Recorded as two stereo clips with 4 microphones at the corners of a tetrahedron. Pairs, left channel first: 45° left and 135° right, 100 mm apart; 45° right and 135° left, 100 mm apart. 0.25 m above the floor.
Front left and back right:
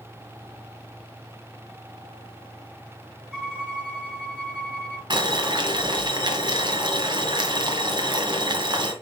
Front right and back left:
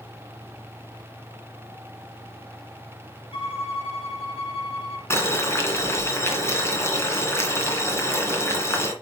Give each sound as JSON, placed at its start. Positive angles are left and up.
{"t": 3.3, "sound": "a violin", "azimuth_deg": -55, "distance_m": 3.5}
{"t": 5.1, "sound": "boiling", "azimuth_deg": -105, "distance_m": 2.0}